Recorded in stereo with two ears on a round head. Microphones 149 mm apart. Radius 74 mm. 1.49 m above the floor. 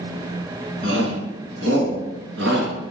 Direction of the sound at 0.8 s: 70° right (ahead or behind).